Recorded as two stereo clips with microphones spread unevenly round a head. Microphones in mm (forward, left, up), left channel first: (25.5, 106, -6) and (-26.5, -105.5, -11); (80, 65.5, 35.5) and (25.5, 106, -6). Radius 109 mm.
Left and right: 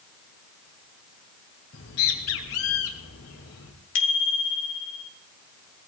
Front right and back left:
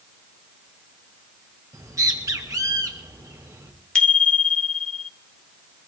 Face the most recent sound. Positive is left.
turn(degrees=40)